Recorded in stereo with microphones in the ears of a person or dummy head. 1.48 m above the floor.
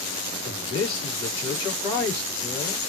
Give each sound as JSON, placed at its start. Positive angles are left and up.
{"t": 0.5, "sound": "a man speaking", "side_deg": 25, "distance_m": 3.0}